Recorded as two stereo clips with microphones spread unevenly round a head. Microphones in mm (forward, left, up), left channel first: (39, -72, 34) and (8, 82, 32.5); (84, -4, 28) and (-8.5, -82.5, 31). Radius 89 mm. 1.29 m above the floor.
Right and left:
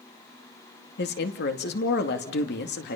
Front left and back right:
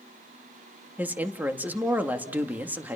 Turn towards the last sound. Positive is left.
turn(degrees=-65)